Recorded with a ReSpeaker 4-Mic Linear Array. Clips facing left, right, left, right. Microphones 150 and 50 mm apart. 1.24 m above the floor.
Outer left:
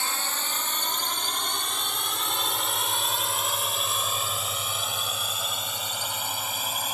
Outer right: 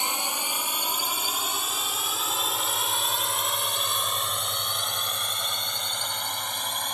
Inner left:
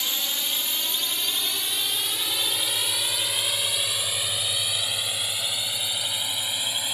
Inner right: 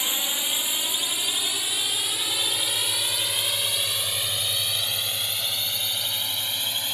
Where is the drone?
20° right (ahead or behind); by 6.9 s 5° left (ahead or behind).